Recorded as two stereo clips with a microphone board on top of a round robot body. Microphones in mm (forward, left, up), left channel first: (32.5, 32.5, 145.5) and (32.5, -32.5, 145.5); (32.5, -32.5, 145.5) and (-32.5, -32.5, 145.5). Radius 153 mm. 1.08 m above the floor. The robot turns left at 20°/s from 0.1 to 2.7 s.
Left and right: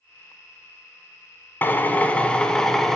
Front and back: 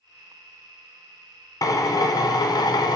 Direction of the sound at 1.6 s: 30° left.